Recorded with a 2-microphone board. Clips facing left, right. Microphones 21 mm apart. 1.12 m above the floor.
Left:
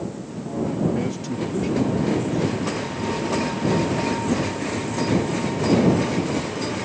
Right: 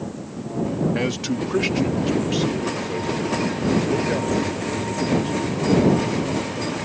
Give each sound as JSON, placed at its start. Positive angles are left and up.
{"t": 0.9, "sound": "a man speaking", "side_deg": -50}